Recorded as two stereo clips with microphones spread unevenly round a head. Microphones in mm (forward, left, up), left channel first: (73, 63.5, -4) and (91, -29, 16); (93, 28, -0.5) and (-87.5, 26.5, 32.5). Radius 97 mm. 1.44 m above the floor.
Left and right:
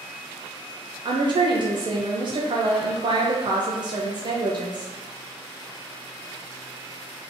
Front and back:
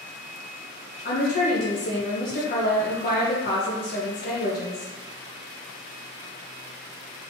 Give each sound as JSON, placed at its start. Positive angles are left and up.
{"t": 1.1, "sound": "a woman speaking", "azimuth_deg": -35, "distance_m": 0.7}